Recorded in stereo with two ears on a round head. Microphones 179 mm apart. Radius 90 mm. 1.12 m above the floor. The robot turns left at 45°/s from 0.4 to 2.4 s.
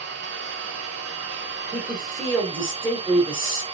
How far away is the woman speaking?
About 1.6 m.